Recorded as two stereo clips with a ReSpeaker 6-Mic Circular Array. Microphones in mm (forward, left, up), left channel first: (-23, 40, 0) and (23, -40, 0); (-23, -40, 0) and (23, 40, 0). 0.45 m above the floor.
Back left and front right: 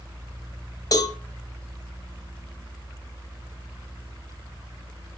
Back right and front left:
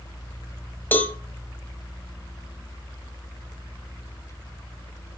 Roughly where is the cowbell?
Behind.